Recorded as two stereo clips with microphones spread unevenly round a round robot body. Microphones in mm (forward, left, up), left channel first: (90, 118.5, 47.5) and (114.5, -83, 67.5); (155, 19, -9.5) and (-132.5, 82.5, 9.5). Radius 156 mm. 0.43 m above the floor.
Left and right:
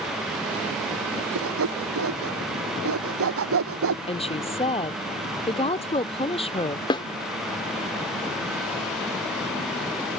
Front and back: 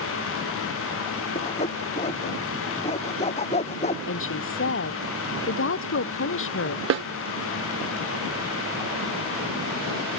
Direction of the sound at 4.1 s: 35° left.